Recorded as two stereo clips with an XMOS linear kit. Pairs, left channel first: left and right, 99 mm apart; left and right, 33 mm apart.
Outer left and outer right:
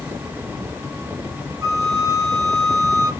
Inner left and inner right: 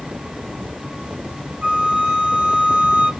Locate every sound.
1.6 s a flute: 40° right (ahead or behind), 0.8 m